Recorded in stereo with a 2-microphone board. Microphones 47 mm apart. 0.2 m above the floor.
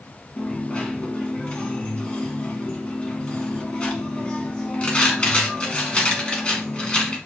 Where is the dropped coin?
25° left (ahead or behind), 1.0 m.